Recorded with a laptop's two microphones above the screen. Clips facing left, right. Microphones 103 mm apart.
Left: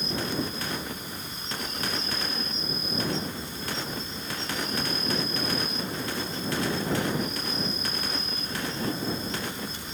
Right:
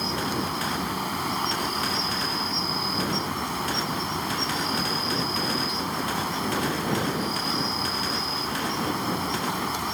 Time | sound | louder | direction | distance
0.0 | an insect | right 3 dB | 80° right | ?